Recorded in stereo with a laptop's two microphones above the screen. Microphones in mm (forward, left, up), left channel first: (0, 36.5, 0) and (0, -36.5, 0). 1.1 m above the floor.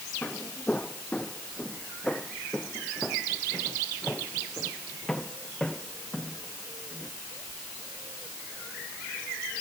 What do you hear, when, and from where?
0.2 s footsteps: 20° left (ahead or behind); by 7.1 s 5° left (ahead or behind)